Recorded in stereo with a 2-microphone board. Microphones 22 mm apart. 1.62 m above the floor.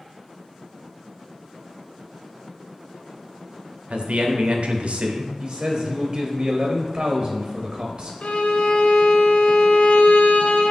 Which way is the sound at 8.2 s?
75° left (ahead or behind).